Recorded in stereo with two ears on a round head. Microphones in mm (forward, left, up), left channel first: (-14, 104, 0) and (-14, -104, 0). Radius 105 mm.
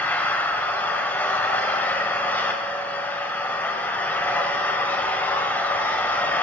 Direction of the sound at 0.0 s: 10° left (ahead or behind).